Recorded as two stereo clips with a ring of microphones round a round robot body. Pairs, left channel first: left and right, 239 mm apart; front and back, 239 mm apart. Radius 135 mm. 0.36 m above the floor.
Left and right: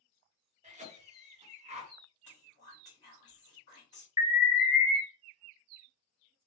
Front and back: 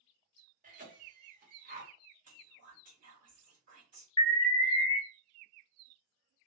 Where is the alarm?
40° right, 0.9 m.